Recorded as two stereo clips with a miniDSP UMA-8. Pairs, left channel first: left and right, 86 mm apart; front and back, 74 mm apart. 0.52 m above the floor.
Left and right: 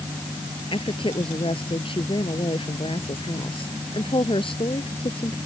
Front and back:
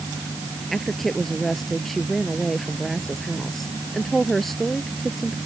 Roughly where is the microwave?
I don't hear a microwave.